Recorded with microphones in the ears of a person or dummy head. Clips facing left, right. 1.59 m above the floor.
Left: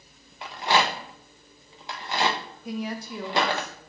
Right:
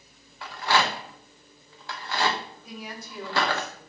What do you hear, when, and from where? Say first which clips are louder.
0.4 s a rattle: left 1 dB; 25° left (ahead or behind), 1.0 m
2.6 s a woman speaking: left 8 dB; 50° left (ahead or behind), 1.3 m